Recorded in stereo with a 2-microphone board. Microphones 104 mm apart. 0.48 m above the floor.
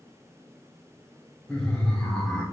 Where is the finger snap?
I don't hear a finger snap.